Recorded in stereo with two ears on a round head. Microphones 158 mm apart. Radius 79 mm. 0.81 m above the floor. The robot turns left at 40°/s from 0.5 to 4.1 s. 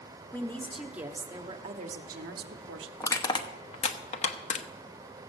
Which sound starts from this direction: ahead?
A woman speaking, at 0.3 s.